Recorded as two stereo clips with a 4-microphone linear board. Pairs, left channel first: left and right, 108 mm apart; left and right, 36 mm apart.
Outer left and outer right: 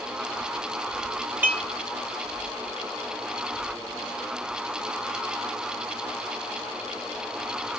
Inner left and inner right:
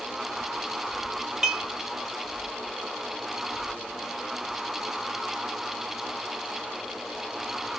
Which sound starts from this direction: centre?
Dishes clattering, at 1.4 s.